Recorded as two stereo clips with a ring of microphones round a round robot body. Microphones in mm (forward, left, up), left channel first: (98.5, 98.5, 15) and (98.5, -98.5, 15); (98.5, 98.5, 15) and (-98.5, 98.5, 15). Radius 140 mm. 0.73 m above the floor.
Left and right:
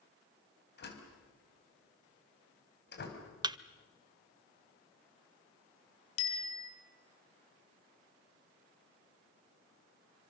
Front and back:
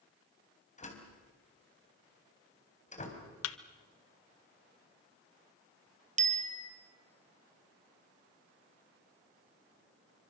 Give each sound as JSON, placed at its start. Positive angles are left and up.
{"t": 0.8, "sound": "a door slam", "azimuth_deg": 55, "distance_m": 4.0}
{"t": 3.4, "sound": "a thud", "azimuth_deg": -20, "distance_m": 0.8}
{"t": 6.2, "sound": "a bicycle bell", "azimuth_deg": 125, "distance_m": 2.5}